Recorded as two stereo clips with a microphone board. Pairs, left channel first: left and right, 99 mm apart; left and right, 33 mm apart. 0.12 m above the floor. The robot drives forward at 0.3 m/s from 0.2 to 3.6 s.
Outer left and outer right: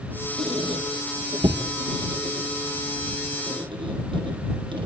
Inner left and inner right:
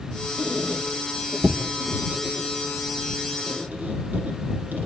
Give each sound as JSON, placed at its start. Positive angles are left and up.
{"t": 0.4, "sound": "a squeak", "side_deg": -65, "distance_m": 4.5}